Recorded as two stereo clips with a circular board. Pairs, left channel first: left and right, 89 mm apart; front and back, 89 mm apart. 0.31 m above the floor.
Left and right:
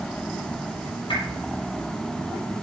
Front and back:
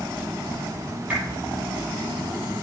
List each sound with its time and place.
1.1 s a whoosh: 105° left, 5.5 m